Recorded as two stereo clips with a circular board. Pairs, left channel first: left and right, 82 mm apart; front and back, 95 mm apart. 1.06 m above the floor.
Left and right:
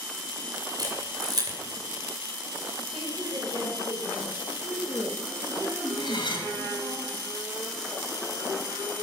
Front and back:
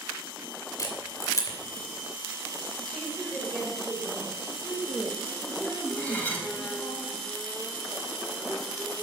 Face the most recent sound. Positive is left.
turn(degrees=75)